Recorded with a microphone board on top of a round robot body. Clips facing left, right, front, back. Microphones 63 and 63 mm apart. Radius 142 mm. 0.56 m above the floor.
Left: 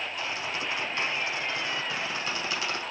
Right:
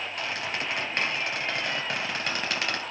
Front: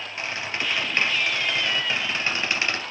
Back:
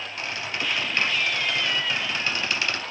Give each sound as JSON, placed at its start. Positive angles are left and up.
{"t": 0.2, "sound": "a squeak", "azimuth_deg": -60, "distance_m": 3.0}